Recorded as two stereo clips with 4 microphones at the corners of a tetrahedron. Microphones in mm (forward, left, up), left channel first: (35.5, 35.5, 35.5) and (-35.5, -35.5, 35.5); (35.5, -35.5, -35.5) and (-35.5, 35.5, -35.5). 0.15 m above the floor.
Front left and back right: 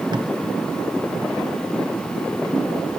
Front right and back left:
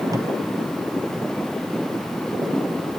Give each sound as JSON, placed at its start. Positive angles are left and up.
{"t": 0.1, "sound": "tape being pulled", "azimuth_deg": -175, "distance_m": 1.2}